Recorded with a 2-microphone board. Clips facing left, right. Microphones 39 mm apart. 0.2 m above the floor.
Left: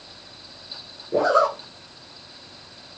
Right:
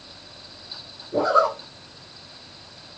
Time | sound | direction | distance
1.1 | a zipper | 75° left (ahead or behind) | 1.4 m